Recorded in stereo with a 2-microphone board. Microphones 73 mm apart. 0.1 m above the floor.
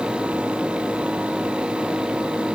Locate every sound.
Only background noise.